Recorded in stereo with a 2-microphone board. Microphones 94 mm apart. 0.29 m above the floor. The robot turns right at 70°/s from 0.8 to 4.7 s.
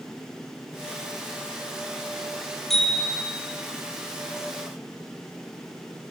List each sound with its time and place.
2.7 s a bicycle bell: straight ahead, 6.5 m; by 3.6 s 65° left, 6.5 m